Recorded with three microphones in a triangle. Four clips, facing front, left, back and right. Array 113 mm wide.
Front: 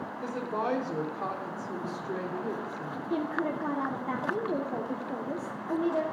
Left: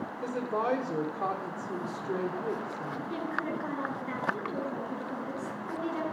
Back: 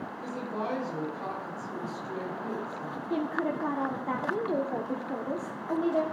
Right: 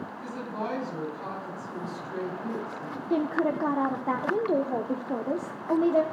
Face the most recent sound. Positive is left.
turn(degrees=-90)